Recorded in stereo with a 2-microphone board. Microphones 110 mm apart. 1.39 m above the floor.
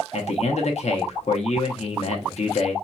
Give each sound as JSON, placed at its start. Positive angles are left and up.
{"t": 0.1, "sound": "a man speaking", "side_deg": 75, "distance_m": 0.8}